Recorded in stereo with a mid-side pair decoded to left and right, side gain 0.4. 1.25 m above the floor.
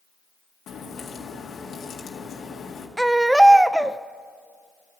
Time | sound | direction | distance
0.7 | a crack | 65° left | 2 m
3.0 | a baby crying | 10° right | 0.6 m